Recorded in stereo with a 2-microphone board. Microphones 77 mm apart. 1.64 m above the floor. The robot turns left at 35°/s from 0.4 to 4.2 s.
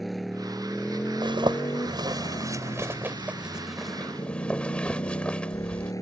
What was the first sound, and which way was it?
A motorcycle, straight behind.